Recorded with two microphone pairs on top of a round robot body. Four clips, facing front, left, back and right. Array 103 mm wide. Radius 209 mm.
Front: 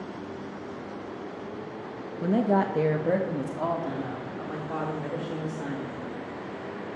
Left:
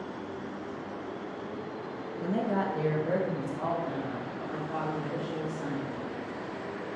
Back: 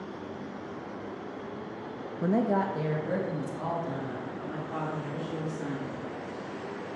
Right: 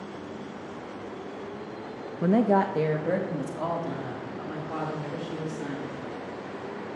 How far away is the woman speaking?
About 0.7 m.